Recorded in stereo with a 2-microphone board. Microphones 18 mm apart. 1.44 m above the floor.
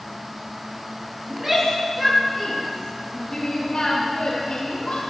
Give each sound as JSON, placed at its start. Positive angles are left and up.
{"t": 1.3, "sound": "a shout", "side_deg": -15, "distance_m": 3.0}